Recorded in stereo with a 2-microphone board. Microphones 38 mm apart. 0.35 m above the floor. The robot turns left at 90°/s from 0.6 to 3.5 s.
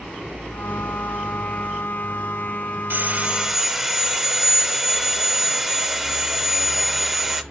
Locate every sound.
2.9 s sawing: 115° right, 0.5 m; by 7.4 s 170° right, 0.5 m